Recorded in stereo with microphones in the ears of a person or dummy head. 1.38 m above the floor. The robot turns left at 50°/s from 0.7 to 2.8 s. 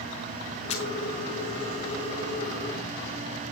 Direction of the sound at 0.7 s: 35° left (ahead or behind).